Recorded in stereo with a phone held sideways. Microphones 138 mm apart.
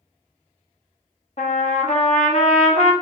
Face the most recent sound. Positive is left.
turn(degrees=50)  # may be behind; listen again after turning